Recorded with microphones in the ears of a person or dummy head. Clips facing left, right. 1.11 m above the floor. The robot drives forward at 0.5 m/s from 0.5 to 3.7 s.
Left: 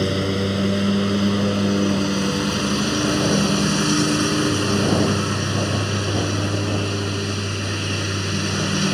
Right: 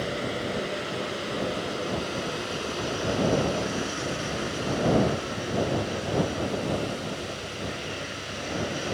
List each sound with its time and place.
0.0 s a lawn mower: 60° left (ahead or behind); by 8.9 s 80° left